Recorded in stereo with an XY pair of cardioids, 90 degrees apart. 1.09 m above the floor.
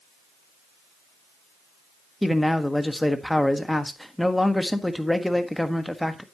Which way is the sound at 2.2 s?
10° left.